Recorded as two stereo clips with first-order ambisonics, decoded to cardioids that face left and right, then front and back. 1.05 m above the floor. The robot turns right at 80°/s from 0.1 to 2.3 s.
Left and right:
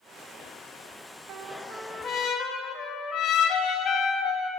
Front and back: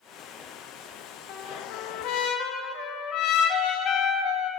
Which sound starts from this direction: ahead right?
A trumpet, at 1.3 s.